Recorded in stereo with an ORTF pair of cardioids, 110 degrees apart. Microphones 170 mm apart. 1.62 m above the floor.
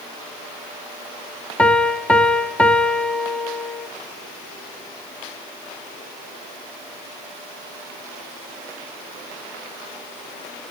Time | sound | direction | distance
1.6 | a piano | 5° left | 0.7 m